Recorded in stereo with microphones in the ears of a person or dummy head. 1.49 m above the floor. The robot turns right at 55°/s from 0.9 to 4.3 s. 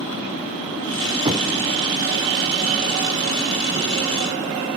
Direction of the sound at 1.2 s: 25° right (ahead or behind).